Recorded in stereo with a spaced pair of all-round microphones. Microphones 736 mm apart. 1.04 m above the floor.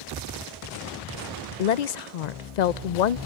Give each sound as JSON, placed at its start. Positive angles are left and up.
{"t": 1.6, "sound": "a woman speaking", "side_deg": 70, "distance_m": 0.6}